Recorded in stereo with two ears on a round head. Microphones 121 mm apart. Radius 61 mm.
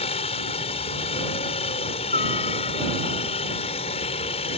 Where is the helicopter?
45° left (ahead or behind).